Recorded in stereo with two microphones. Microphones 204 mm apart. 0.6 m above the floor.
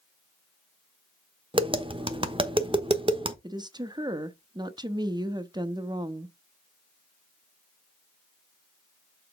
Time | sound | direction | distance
1.5 | tapping | 25° right (ahead or behind) | 1.0 m
3.4 | a woman speaking | 20° right (ahead or behind) | 0.6 m